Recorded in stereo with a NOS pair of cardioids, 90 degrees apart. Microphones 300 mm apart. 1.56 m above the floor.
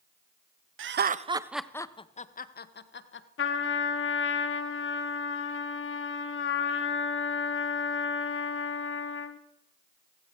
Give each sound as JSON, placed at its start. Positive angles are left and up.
{"t": 0.8, "sound": "laughter", "azimuth_deg": -45, "distance_m": 0.8}
{"t": 3.4, "sound": "a trumpet", "azimuth_deg": 45, "distance_m": 1.5}